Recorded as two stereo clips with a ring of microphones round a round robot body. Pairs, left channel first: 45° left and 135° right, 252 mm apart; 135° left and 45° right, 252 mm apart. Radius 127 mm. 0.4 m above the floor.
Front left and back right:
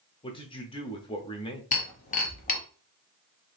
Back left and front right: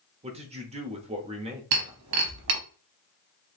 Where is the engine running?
I don't hear an engine running.